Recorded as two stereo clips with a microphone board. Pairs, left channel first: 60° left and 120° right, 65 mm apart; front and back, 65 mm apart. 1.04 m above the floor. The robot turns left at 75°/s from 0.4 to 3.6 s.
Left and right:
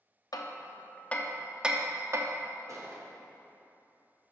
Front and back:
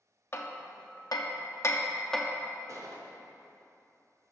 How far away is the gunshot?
About 1.2 m.